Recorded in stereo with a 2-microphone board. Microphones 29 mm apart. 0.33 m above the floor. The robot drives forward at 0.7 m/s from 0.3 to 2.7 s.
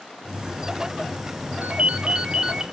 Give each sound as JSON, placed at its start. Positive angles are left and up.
{"t": 1.6, "sound": "a ringtone", "side_deg": -45, "distance_m": 0.6}